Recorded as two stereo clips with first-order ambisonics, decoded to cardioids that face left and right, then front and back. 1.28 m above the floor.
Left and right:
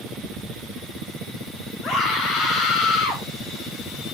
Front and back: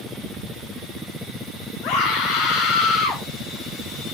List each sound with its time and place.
1.8 s a scream: 40° left, 5.5 m; by 3.2 s 50° left, 5.5 m